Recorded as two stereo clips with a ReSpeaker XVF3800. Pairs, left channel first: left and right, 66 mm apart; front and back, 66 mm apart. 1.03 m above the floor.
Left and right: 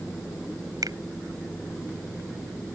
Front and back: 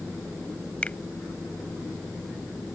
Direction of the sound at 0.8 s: 70° right.